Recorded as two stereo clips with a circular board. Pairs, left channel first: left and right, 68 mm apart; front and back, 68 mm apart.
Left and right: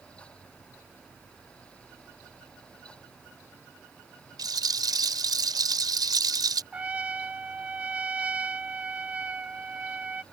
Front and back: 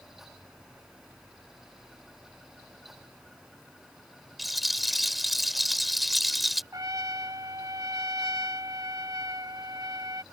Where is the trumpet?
160° right.